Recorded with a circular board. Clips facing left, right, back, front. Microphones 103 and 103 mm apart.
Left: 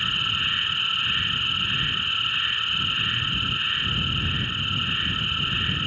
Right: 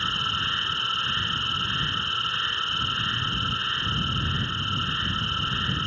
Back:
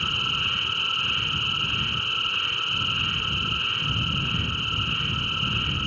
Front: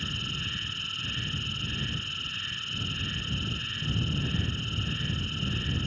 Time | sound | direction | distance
0.0 | an insect | 155° right | ?